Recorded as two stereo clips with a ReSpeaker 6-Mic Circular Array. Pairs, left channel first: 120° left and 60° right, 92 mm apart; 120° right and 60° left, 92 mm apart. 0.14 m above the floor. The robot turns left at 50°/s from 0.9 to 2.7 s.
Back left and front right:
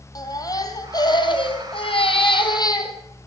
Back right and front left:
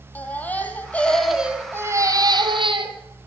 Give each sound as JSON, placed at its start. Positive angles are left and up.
{"t": 0.1, "sound": "a baby crying", "azimuth_deg": 165, "distance_m": 3.0}